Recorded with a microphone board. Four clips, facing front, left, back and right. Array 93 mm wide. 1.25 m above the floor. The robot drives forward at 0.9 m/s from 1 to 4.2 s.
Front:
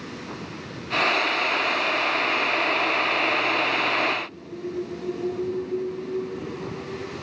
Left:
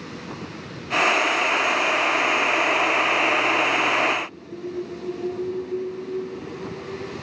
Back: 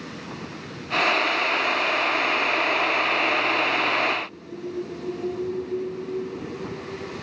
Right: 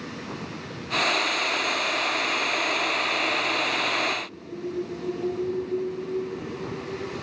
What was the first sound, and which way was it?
Only background noise.